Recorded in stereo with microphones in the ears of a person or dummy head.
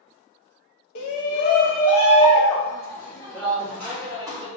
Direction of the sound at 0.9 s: 50° left (ahead or behind).